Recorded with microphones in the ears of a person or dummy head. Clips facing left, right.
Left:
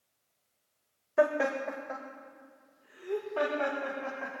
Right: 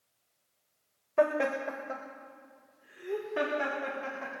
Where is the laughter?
15° left (ahead or behind), 1.5 m; by 4.3 s 20° right (ahead or behind), 4 m.